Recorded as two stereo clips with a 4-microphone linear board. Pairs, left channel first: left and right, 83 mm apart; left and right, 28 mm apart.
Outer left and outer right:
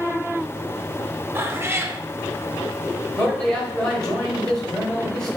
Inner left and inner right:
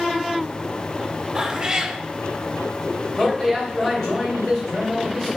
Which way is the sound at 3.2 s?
10° left (ahead or behind).